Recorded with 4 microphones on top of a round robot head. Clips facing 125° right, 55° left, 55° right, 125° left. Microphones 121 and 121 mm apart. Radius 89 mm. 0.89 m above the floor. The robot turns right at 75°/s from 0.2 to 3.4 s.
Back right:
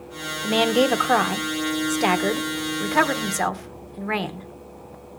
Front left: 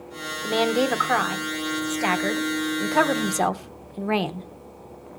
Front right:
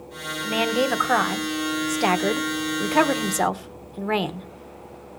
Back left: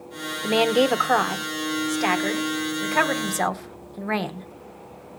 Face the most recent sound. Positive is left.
turn(degrees=10)